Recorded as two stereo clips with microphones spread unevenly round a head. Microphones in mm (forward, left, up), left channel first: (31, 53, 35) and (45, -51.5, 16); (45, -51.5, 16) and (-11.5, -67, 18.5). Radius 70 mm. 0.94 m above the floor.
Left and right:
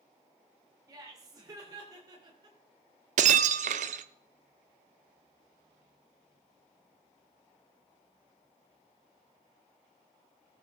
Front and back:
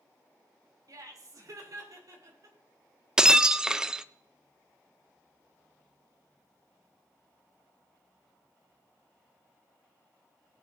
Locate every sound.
0.9 s laughter: 145° right, 3 m
3.2 s breaking glass: 90° right, 0.5 m